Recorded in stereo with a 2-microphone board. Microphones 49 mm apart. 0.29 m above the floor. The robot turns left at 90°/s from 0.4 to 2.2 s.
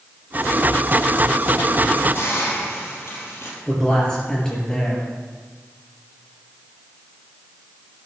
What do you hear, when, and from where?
2.1 s a hiss: 50° left (ahead or behind), 5 m; by 3.6 s 55° left (ahead or behind), 5 m
3.7 s a man speaking: 15° left (ahead or behind), 4.5 m